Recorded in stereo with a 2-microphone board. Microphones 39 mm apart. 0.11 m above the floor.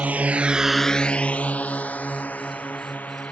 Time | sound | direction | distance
0.0 | a drone | 40° right (ahead or behind) | ?